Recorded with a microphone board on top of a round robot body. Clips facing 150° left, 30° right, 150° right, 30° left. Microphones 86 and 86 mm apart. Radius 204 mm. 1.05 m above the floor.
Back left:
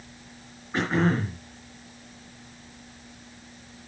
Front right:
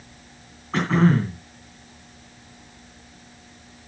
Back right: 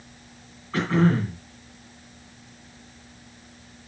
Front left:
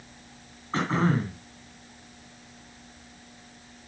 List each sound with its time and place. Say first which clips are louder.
0.7 s throat clearing: front right 5 dB, back right 4 dB; 30° right, 3 m